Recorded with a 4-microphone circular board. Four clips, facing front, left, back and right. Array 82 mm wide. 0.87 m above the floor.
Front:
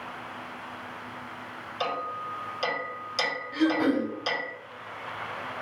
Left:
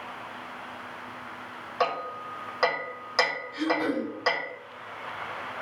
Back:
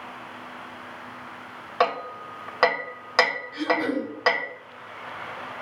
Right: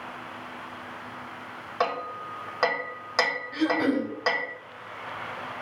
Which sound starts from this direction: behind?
Hammering, at 1.8 s.